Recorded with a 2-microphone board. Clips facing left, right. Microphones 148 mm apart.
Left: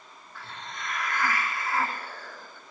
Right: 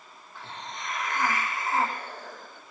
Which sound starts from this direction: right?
A hiss, at 0.3 s.